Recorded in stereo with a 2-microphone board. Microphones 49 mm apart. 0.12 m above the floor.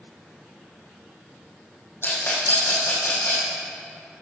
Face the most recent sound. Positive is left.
turn(degrees=55)  # may be behind; listen again after turning